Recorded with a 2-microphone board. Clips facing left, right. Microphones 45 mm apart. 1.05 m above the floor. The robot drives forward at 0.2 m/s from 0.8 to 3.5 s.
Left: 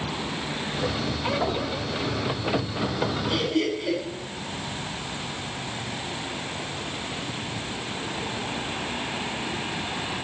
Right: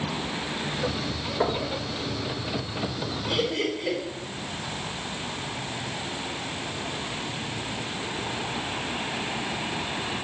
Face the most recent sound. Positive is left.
turn(degrees=-60)  # may be behind; listen again after turning